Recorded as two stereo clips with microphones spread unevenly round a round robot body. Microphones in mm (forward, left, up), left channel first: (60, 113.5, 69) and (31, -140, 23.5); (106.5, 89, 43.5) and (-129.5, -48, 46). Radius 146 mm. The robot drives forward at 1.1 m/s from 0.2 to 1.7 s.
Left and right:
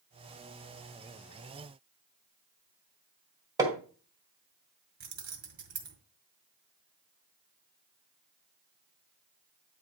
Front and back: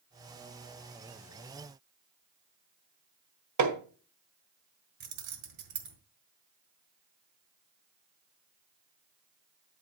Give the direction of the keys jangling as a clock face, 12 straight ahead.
5 o'clock.